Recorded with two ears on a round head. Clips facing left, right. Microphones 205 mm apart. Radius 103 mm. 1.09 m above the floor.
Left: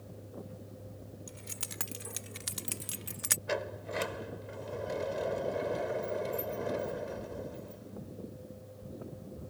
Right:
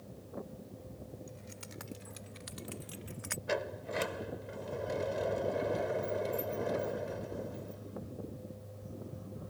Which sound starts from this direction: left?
Keys jangling, at 1.3 s.